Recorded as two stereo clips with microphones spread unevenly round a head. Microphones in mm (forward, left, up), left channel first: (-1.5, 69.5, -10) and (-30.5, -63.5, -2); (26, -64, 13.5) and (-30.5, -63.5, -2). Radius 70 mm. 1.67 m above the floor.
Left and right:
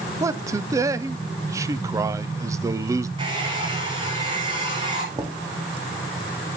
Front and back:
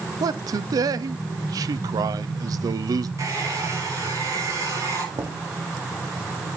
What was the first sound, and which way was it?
A man speaking, 170° right.